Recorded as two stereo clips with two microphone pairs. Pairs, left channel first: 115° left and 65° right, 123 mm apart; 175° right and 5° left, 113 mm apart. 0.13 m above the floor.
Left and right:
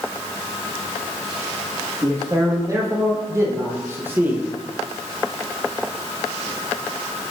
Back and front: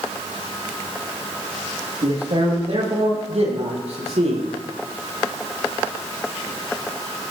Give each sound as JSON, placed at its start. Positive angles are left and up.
{"t": 2.0, "sound": "a man speaking", "azimuth_deg": -10, "distance_m": 6.5}